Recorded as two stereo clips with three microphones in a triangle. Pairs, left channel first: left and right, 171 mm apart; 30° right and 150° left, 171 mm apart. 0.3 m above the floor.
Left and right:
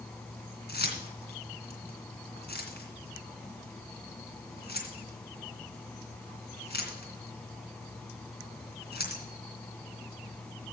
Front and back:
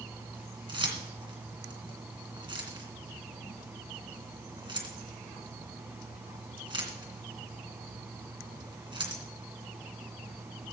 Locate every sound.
0.7 s keys jangling: 90° left, 2.5 m